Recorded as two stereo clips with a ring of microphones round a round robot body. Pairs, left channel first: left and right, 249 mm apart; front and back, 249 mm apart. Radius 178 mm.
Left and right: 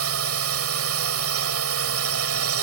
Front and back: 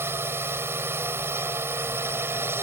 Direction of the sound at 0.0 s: 100° right.